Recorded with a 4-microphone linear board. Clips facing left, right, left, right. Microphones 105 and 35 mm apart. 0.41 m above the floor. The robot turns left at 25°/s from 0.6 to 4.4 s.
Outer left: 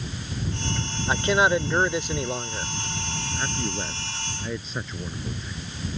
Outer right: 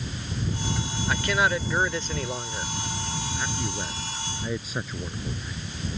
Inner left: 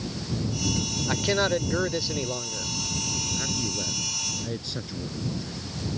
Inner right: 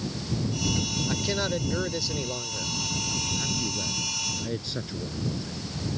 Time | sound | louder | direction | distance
1.1 | a man speaking | outer left 4 dB, inner left 7 dB | 50° left | ?
3.4 | a man speaking | outer left 4 dB, even | 20° left (ahead or behind) | ?